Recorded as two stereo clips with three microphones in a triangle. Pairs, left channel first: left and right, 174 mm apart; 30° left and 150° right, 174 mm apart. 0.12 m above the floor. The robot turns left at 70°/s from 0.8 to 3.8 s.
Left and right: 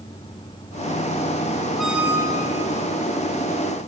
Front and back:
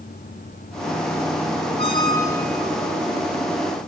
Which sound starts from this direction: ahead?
A squeak, at 1.8 s.